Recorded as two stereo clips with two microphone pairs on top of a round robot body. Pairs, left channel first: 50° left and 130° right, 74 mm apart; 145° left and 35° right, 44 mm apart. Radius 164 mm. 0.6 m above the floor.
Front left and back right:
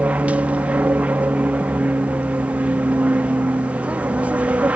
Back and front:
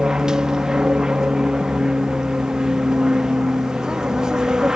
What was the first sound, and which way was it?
An aircraft, 85° right.